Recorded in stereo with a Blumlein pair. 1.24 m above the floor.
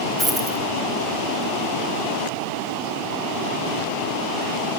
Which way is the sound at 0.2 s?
15° right.